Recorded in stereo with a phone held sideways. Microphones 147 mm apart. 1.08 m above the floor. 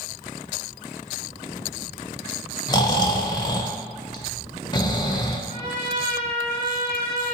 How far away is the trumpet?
About 1.3 m.